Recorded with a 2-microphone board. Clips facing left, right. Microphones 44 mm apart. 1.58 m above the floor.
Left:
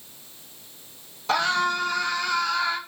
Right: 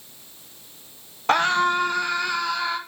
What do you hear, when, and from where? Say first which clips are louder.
1.3 s a scream: right 3 dB; 50° right (ahead or behind), 1.6 m; by 2.8 s 15° right (ahead or behind), 2.5 m